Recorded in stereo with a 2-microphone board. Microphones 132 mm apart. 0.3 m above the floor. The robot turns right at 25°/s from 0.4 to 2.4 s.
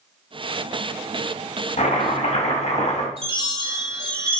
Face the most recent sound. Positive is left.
turn(degrees=-45)  # may be behind; listen again after turning